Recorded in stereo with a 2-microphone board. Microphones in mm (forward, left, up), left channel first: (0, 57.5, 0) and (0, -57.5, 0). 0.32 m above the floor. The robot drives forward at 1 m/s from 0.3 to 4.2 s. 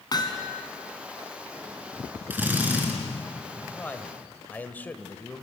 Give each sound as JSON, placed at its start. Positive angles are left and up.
{"t": 0.1, "sound": "hammering", "side_deg": 35, "distance_m": 2.5}
{"t": 2.3, "sound": "a drill", "side_deg": -15, "distance_m": 5.0}
{"t": 3.8, "sound": "a man speaking", "side_deg": 15, "distance_m": 1.8}